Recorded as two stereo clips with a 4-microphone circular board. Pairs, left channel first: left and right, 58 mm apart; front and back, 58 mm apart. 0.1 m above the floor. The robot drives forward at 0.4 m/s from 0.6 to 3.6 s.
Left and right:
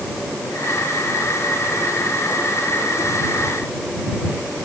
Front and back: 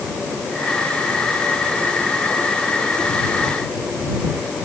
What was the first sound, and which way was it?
Only background noise.